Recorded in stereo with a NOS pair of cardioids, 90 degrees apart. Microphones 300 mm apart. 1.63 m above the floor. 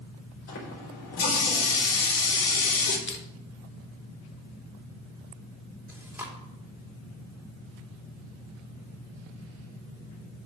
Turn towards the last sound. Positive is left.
turn(degrees=-5)